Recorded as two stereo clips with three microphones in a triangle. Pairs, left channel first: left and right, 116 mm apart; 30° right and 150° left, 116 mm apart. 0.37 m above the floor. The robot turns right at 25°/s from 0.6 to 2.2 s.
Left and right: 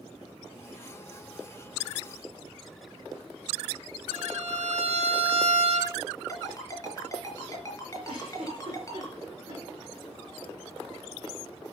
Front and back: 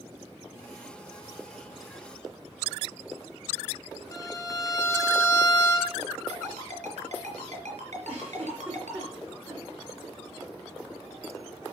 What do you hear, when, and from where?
4.1 s a violin: 90° right, 3 m
6.3 s a ringtone: 150° left, 4 m
8.1 s a giggle: 135° right, 5 m